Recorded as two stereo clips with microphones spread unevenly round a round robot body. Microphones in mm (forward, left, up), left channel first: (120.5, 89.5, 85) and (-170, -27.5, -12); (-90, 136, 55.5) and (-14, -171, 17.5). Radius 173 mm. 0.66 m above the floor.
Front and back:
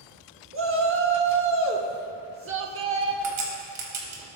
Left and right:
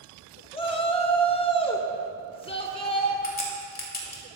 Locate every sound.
0.5 s a shout: straight behind, 1.9 m
3.2 s a crack: 170° left, 3 m